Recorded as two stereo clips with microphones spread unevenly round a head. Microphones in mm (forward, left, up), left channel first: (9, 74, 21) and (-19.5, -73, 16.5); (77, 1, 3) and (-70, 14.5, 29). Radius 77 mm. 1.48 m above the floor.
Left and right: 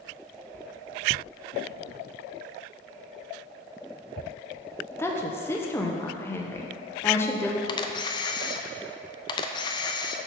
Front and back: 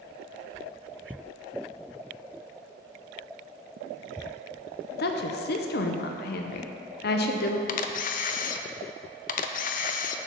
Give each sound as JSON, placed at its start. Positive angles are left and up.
{"t": 5.0, "sound": "a woman speaking", "azimuth_deg": 5, "distance_m": 0.8}
{"t": 7.7, "sound": "a camera shutter", "azimuth_deg": 15, "distance_m": 0.5}